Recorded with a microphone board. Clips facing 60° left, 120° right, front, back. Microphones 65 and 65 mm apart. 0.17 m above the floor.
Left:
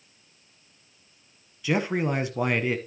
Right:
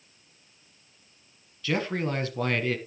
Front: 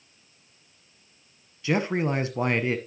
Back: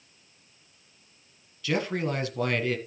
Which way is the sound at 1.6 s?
10° left.